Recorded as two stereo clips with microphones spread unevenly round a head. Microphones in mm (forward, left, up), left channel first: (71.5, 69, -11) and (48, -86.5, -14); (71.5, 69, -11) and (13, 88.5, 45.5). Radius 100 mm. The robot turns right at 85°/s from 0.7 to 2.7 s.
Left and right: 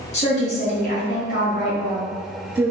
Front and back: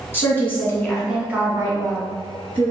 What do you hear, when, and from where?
0.1 s a woman speaking: 35° left, 1.3 m; by 2.7 s 155° right, 1.3 m